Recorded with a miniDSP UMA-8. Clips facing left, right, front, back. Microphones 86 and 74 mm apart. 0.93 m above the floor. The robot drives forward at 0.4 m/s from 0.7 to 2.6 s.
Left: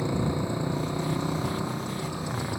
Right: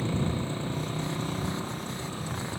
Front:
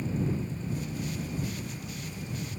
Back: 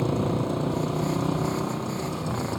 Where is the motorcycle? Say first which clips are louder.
Left 2 dB, back 7 dB; 165° left.